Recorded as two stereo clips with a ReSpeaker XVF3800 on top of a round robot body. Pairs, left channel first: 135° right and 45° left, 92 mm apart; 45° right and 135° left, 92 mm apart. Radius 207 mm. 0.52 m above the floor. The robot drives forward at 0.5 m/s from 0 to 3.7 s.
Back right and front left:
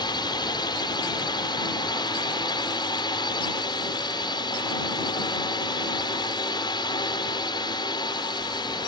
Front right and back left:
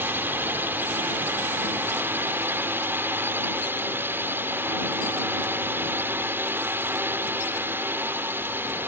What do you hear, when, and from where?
0.0 s a drone: 160° right